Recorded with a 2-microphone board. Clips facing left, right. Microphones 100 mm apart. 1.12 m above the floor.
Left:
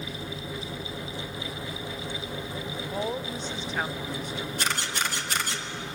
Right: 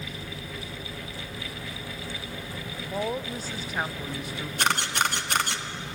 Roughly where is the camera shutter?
Right.